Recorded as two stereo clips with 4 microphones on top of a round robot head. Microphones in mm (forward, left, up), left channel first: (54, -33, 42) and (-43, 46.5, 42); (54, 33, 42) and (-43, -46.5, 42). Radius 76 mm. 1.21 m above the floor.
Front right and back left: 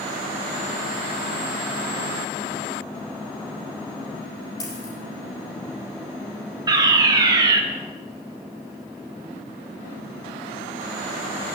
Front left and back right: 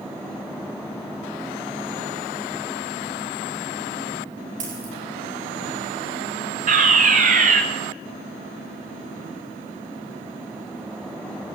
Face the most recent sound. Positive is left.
turn(degrees=-160)